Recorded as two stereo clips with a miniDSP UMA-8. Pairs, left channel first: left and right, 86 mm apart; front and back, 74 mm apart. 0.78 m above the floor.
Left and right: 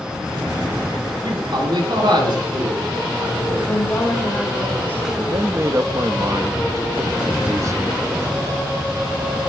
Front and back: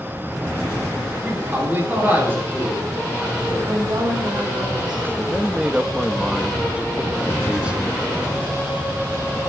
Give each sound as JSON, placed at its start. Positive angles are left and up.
{"t": 1.2, "sound": "a man speaking", "azimuth_deg": -120, "distance_m": 9.5}
{"t": 3.7, "sound": "a woman speaking", "azimuth_deg": 160, "distance_m": 9.0}
{"t": 5.2, "sound": "a man speaking", "azimuth_deg": -110, "distance_m": 1.0}